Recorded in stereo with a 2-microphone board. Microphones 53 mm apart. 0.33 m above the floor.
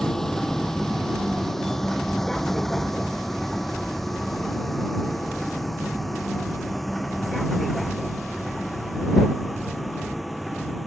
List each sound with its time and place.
0.0 s a vehicle: 5° left (ahead or behind); by 10.9 s centre (ahead or behind)